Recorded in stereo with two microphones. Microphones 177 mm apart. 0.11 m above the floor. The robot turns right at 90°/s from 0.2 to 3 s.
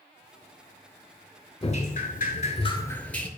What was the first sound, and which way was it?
Dripping, 45° left.